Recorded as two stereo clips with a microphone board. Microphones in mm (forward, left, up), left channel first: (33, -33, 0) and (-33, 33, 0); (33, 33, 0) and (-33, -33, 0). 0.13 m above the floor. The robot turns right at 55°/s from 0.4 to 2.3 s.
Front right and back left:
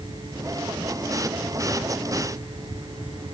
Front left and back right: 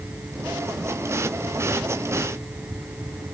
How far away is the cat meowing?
No cat meowing in this recording.